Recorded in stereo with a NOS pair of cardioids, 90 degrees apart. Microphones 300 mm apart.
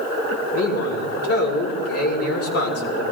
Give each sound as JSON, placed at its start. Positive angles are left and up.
{"t": 0.5, "sound": "a man speaking", "azimuth_deg": 50, "distance_m": 5.0}